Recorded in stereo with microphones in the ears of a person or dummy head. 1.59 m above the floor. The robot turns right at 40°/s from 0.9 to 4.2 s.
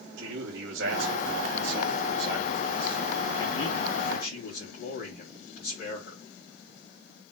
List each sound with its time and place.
0.2 s a man speaking: 75° right, 3 m; by 6.2 s 55° left, 3 m